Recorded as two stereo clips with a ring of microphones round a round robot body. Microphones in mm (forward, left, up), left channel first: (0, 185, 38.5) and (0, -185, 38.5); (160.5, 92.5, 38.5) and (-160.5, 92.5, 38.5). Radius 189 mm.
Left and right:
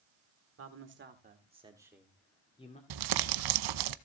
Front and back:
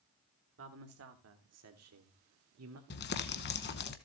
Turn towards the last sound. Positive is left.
turn(degrees=-65)